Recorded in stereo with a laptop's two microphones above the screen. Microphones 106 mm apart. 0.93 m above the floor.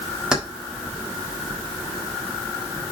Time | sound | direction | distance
0.3 | keys jangling | 5° right (ahead or behind) | 1.4 m